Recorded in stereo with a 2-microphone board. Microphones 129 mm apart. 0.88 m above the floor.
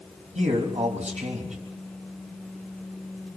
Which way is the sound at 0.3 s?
65° right (ahead or behind).